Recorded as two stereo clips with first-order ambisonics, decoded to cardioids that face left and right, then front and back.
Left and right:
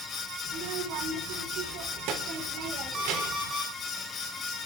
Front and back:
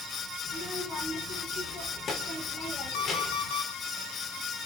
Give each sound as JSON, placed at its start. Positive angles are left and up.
{"t": 0.5, "sound": "a child speaking", "azimuth_deg": -60, "distance_m": 3.5}
{"t": 2.9, "sound": "an alarm clock", "azimuth_deg": -15, "distance_m": 5.5}